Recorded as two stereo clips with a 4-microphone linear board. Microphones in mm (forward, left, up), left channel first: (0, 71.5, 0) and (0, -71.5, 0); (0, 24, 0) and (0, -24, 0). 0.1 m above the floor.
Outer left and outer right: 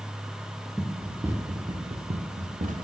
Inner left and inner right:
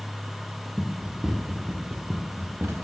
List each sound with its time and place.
0.8 s running footsteps: centre (ahead or behind), 1.4 m; by 2.9 s 70° right (ahead or behind), 1.9 m